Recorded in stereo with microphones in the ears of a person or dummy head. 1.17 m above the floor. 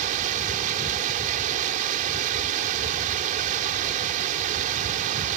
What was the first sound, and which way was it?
Running water, 45° right (ahead or behind).